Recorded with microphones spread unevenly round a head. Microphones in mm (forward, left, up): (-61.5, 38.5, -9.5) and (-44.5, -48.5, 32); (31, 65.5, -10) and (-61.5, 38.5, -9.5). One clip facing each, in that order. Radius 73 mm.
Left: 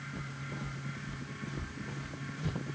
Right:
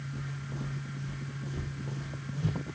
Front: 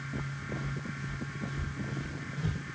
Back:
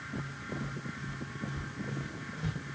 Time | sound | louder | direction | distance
0.1 | footsteps | right 1 dB, even | 95° right | 5 m